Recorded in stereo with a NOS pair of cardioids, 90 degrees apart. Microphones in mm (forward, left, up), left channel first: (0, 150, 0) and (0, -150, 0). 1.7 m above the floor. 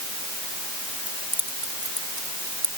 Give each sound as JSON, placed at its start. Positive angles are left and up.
{"t": 1.1, "sound": "keys jangling", "azimuth_deg": -5}